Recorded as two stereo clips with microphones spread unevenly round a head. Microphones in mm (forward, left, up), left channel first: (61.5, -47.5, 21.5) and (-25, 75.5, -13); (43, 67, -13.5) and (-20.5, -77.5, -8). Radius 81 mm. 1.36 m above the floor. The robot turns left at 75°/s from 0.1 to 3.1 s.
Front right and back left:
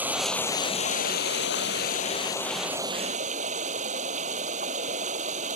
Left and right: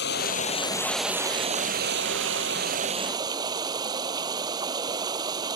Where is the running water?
45° left; by 5.5 s straight behind.